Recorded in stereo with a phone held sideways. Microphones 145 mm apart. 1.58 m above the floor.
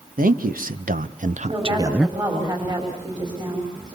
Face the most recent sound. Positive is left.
turn(degrees=-30)  # may be behind; listen again after turning